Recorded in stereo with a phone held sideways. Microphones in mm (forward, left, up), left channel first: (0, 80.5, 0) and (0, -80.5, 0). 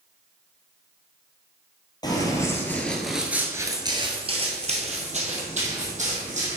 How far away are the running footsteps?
About 1.5 m.